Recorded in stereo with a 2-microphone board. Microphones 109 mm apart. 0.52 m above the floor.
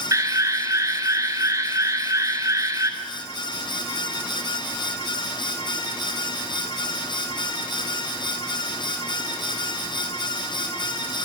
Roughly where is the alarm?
Right.